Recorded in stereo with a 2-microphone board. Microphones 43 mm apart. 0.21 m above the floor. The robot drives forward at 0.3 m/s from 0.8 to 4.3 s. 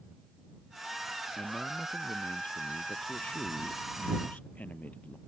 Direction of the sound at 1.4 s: 30° left (ahead or behind).